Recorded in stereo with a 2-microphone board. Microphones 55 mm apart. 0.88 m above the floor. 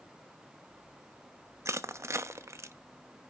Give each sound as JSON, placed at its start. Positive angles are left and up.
{"t": 1.6, "sound": "crushing", "side_deg": -60, "distance_m": 0.8}